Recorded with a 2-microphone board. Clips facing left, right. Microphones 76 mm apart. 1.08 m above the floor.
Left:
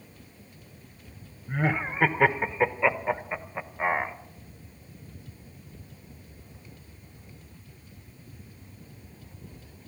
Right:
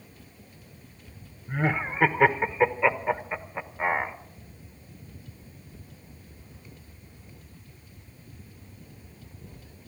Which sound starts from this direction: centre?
Laughter, at 1.5 s.